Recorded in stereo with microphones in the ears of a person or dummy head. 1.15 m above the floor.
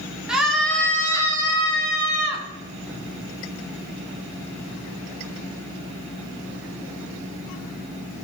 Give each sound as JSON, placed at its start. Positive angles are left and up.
{"t": 0.3, "sound": "a scream", "side_deg": -5, "distance_m": 2.5}